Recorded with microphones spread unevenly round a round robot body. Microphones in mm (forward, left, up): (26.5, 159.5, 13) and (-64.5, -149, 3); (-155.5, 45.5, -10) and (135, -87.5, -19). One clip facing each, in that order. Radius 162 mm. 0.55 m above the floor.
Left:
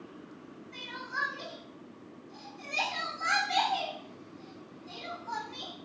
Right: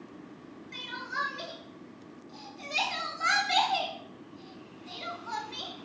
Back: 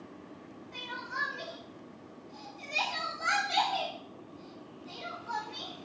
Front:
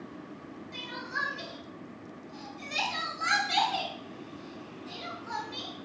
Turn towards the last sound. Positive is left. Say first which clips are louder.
# right 1 dB, front 4 dB
turn(degrees=-75)